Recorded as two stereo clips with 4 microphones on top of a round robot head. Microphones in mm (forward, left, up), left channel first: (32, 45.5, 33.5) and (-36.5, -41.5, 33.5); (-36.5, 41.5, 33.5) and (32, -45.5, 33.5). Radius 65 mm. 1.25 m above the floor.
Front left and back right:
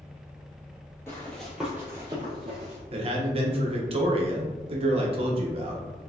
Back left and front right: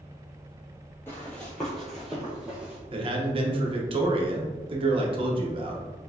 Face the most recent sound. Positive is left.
turn(degrees=-90)